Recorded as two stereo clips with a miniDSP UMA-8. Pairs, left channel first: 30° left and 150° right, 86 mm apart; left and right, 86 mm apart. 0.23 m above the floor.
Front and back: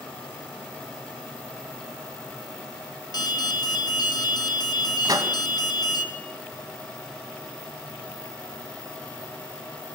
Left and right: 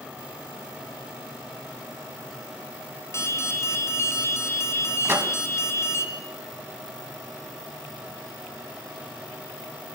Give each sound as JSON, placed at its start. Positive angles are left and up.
{"t": 3.1, "sound": "an alarm", "azimuth_deg": 40, "distance_m": 2.5}
{"t": 5.0, "sound": "a microwave", "azimuth_deg": -140, "distance_m": 1.5}